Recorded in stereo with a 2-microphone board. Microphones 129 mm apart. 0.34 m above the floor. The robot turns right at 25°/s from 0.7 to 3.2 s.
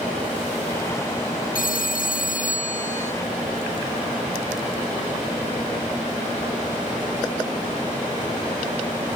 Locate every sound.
1.6 s a phone ringing: 85° left; by 3.1 s 125° left